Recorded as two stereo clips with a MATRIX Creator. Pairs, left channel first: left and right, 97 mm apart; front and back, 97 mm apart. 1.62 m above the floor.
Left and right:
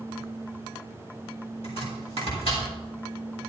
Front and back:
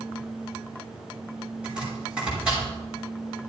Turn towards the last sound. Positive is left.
turn(degrees=100)